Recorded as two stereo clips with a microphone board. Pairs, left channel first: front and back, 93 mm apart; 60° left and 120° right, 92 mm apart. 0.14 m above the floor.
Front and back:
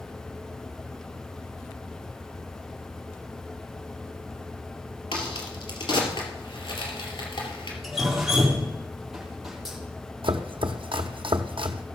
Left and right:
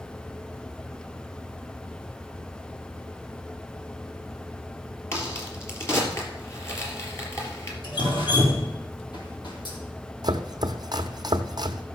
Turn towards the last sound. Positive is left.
turn(degrees=-160)